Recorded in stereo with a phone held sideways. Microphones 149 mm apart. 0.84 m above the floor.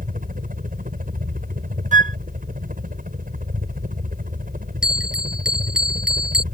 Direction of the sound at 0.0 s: 70° right (ahead or behind).